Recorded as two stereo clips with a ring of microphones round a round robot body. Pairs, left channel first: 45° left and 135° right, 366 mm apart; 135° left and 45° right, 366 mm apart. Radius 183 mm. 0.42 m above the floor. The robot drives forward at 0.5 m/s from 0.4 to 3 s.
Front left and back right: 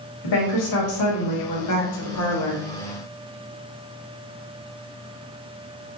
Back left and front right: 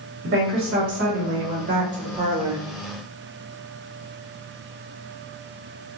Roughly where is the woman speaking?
Ahead.